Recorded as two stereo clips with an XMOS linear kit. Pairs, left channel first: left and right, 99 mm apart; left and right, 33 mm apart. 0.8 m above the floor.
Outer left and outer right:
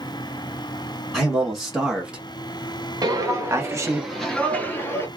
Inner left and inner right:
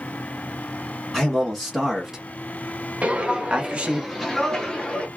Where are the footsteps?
40° right (ahead or behind), 1.0 m; by 5.1 s 30° left (ahead or behind), 1.1 m.